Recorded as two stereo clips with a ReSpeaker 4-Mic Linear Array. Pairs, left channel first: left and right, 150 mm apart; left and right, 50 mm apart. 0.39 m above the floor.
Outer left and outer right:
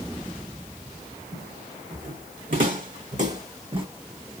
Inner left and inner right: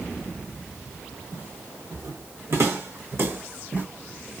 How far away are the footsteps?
About 2.5 m.